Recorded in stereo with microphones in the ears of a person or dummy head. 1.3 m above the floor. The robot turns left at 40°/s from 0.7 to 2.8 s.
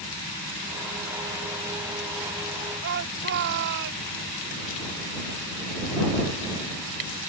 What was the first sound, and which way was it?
A shout, 60° right (ahead or behind).